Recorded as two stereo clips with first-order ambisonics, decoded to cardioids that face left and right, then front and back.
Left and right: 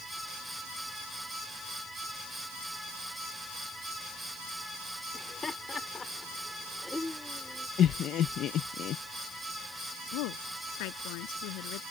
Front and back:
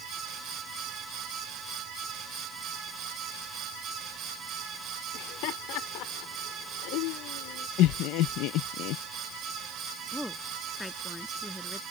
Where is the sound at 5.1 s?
20° left; by 7.7 s straight ahead.